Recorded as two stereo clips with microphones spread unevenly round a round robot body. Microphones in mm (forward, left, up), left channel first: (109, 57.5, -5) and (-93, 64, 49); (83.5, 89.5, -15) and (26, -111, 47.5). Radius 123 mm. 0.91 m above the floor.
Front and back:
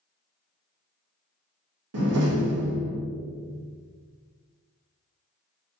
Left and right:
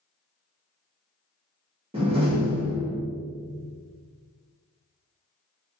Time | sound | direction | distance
1.9 | a door slam | straight behind | 1.3 m